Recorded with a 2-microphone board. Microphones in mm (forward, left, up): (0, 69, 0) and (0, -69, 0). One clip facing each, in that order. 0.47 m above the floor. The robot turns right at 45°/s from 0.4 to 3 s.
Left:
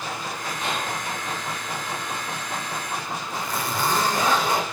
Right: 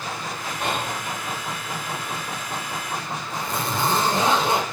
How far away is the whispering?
About 2 m.